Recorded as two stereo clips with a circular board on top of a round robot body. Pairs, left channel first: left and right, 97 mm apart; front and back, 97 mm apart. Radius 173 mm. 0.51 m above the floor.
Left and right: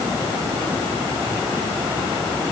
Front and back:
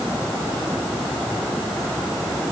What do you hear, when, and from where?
Only background noise.